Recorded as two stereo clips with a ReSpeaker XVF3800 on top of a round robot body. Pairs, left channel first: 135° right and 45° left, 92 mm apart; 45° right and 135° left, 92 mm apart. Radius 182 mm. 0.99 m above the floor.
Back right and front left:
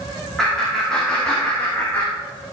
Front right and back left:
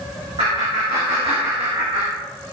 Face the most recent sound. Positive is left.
turn(degrees=170)